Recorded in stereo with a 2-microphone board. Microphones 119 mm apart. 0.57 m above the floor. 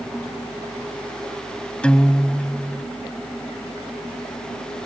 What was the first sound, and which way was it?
A guitar, 10° left (ahead or behind).